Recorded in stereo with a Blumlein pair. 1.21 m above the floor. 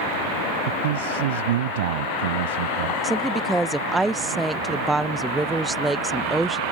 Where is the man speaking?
55° right.